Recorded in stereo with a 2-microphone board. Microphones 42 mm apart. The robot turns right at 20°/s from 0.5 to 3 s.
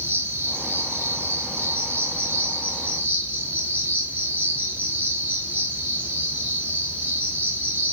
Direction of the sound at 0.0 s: 90° right.